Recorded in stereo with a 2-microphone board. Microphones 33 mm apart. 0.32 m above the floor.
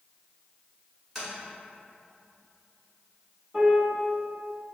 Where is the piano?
5° right (ahead or behind), 2.0 m.